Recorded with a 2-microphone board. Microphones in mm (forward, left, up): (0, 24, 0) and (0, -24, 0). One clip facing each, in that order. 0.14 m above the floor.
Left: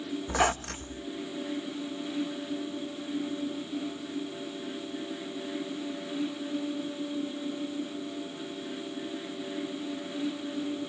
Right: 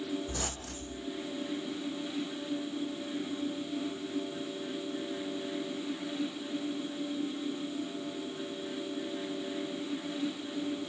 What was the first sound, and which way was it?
A squeak, 70° left (ahead or behind).